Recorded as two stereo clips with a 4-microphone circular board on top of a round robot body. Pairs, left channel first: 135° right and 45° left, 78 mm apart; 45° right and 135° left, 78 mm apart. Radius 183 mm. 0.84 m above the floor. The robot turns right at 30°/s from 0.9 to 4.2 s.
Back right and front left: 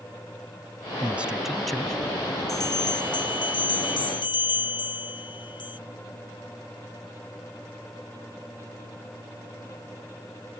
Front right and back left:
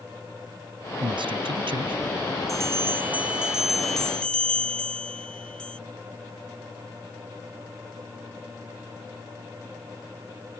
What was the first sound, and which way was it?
A man speaking, 115° left.